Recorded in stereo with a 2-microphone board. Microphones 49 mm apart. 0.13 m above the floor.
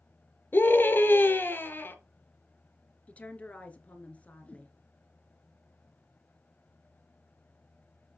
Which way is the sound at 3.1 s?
25° left (ahead or behind).